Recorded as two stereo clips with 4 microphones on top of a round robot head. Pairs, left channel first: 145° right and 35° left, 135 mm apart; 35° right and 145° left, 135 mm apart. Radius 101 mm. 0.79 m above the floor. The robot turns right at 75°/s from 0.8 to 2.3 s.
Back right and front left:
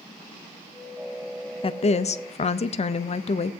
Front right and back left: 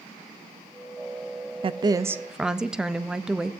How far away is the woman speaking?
About 0.5 m.